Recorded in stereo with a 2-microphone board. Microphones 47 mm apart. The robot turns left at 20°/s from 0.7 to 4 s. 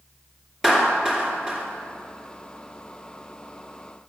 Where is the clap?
10° right (ahead or behind), 2 m; by 1.6 s 25° right (ahead or behind), 2 m.